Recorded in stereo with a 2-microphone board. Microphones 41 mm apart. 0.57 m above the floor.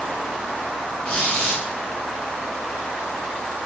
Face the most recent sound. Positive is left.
turn(degrees=50)  # may be behind; listen again after turning